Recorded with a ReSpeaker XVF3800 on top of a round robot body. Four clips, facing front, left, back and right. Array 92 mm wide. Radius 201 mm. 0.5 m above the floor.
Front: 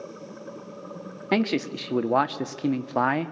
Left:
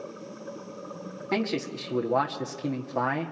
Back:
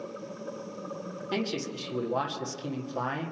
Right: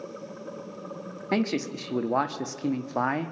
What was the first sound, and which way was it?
A man speaking, 10° right.